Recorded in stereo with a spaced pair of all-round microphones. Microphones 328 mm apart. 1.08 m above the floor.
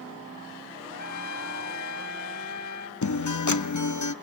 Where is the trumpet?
55° left (ahead or behind), 1.1 m.